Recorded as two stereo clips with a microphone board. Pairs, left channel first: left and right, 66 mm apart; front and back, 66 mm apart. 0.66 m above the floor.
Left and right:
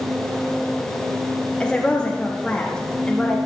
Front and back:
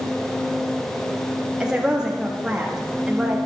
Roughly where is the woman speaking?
Behind left.